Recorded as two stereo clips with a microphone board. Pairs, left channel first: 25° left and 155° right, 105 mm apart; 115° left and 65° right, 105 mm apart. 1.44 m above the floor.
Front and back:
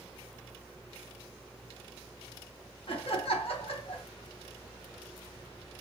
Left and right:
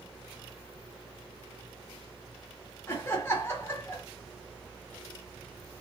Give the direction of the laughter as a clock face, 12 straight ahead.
10 o'clock.